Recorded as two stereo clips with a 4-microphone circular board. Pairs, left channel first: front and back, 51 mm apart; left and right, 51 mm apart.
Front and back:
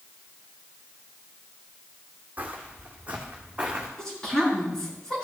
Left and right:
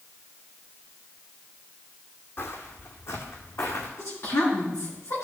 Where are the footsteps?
125° left, 1.7 m; by 3.9 s 110° left, 2.5 m.